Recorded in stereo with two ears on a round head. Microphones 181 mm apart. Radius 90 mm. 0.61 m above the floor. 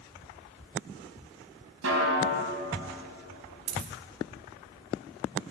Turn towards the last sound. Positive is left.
turn(degrees=-80)